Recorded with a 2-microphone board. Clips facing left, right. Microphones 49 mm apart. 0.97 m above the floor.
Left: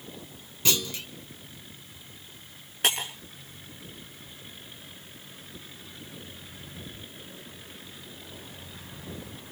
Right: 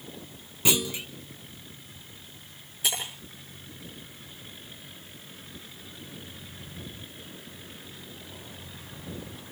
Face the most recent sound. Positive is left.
turn(degrees=60)  # may be behind; listen again after turning